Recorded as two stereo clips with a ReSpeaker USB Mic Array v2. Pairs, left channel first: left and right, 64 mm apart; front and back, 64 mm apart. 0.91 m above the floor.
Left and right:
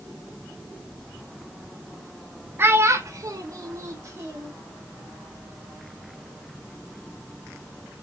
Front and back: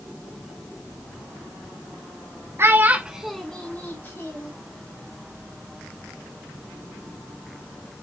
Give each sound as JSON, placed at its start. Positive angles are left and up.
{"t": 2.6, "sound": "a child speaking", "azimuth_deg": -140, "distance_m": 0.6}